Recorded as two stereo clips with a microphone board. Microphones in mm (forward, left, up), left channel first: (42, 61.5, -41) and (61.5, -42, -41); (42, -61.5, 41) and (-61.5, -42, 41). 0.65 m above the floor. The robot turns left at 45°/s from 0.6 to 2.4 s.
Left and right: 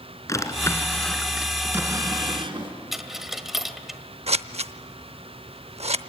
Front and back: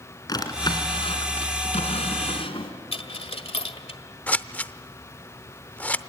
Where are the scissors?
85° right, 0.6 m.